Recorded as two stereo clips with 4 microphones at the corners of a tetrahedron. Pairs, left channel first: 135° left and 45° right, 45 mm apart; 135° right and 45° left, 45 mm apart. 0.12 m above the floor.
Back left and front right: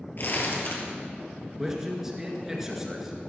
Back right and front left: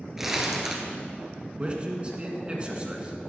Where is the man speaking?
25° left, 1.8 m.